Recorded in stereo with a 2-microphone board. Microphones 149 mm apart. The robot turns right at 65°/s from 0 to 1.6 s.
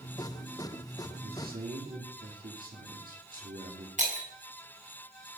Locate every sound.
1.2 s a man speaking: 85° right, 3 m; by 3.9 s 65° right (ahead or behind), 3 m
4.0 s breaking glass: 50° right (ahead or behind), 3.5 m